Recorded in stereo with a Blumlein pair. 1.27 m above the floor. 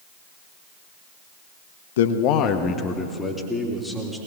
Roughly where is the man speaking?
Ahead left.